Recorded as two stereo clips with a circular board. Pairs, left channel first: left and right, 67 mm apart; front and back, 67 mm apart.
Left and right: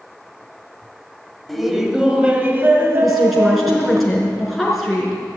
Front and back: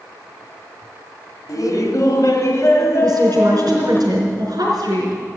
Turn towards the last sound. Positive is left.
turn(degrees=180)